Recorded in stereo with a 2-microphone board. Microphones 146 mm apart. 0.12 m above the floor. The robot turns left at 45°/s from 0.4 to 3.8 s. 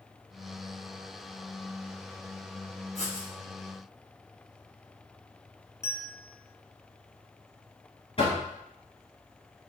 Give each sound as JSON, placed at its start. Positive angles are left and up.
{"t": 3.0, "sound": "writing", "side_deg": 55, "distance_m": 2.0}
{"t": 5.8, "sound": "a bell", "side_deg": 20, "distance_m": 1.0}
{"t": 8.2, "sound": "knocking", "side_deg": 40, "distance_m": 1.8}